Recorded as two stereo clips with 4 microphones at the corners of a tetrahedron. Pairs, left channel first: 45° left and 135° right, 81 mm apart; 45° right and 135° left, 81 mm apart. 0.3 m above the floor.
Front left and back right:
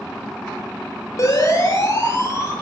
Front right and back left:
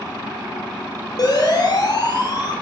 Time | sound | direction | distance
1.2 | a siren | 5° right | 9.5 m